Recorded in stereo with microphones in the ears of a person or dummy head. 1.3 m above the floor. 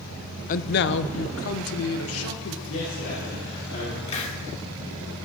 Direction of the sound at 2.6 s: 80° left.